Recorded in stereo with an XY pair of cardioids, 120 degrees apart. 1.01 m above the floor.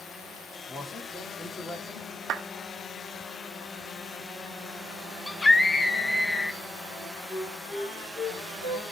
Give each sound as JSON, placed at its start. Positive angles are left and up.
{"t": 0.7, "sound": "a man speaking", "azimuth_deg": 20, "distance_m": 2.5}
{"t": 2.3, "sound": "a clap", "azimuth_deg": -65, "distance_m": 1.1}
{"t": 5.3, "sound": "a scream", "azimuth_deg": 15, "distance_m": 0.5}
{"t": 6.9, "sound": "a flute", "azimuth_deg": 40, "distance_m": 5.0}